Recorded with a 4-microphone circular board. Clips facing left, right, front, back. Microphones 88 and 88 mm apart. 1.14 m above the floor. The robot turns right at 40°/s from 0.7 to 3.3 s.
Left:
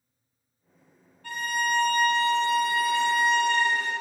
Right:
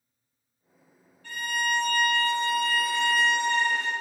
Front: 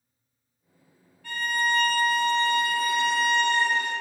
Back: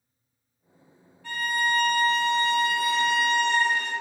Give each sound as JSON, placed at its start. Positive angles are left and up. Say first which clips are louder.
{"t": 1.2, "sound": "a violin", "louder": "left 2 dB, even", "azimuth_deg": 115, "distance_m": 1.5}